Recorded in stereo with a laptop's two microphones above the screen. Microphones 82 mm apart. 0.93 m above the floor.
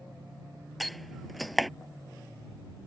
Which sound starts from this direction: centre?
A door slam, at 0.8 s.